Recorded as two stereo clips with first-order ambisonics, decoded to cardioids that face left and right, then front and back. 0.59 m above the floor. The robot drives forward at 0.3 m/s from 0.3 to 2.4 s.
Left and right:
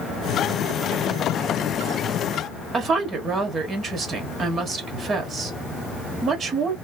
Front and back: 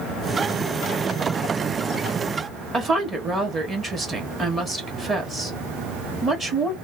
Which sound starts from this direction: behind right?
A woman speaking, at 2.7 s.